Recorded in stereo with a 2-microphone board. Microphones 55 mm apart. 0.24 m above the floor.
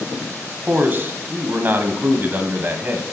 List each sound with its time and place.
0.7 s a man speaking: 35° right (ahead or behind), 1.2 m